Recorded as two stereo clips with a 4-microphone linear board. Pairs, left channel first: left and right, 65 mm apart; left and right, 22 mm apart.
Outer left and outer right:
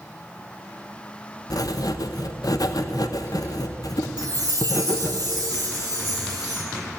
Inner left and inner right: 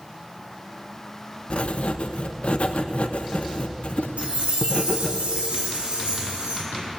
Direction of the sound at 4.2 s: 65° right (ahead or behind).